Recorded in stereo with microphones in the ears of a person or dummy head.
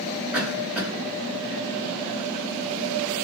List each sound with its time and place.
0.3 s a cough: 5° right (ahead or behind), 1.7 m